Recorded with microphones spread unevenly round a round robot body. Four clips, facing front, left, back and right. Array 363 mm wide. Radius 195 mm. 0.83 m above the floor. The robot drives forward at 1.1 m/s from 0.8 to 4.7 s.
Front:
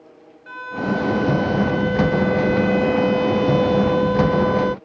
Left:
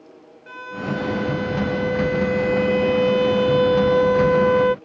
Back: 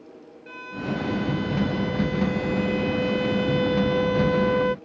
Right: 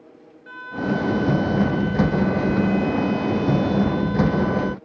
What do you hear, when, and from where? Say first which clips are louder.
0.5 s a violin: right 3 dB, front 7 dB; 40° left; by 4.8 s 75° left